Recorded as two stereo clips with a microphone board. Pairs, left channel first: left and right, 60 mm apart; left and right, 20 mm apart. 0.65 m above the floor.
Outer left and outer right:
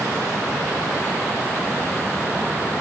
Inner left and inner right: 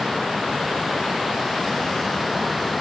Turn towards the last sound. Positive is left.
No sound to turn to.